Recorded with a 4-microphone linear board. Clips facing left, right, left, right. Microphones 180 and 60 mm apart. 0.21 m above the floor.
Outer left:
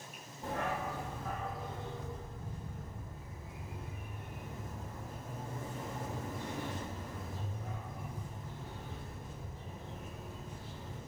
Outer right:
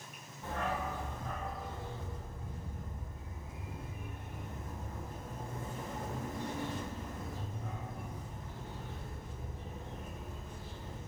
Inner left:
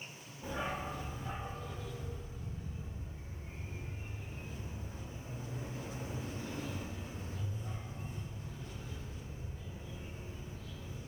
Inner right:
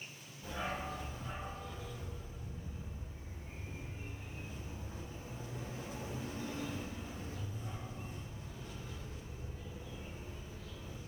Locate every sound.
0.4 s a dog barking: 15° left (ahead or behind), 2.0 m; by 11.0 s 55° right (ahead or behind), 5.5 m